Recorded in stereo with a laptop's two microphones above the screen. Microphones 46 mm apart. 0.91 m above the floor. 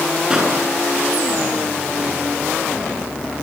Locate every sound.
0.3 s a pop: 15° right (ahead or behind), 9 m